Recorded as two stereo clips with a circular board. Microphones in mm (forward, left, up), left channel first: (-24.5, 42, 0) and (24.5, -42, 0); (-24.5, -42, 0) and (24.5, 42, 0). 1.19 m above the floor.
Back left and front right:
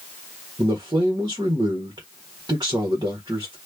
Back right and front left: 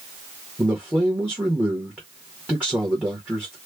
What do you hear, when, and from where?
0.6 s a man speaking: 15° right, 1.4 m